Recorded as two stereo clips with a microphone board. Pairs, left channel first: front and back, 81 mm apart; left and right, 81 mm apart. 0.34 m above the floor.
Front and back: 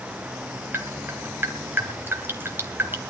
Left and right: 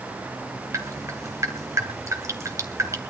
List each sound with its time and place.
0.7 s dripping: 125° right, 2.5 m